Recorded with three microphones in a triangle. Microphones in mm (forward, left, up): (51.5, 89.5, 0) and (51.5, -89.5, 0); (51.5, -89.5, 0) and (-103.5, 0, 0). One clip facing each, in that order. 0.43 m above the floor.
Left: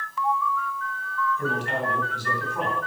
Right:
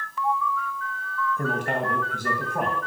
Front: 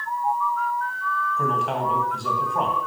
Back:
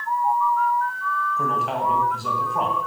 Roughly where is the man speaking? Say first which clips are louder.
Right 3 dB, front 1 dB; behind right.